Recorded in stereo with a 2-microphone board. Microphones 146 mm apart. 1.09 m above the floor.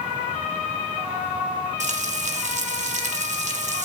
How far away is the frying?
About 1.1 m.